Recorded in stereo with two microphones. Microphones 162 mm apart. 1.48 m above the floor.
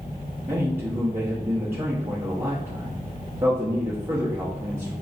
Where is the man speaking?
15° right (ahead or behind), 0.8 m.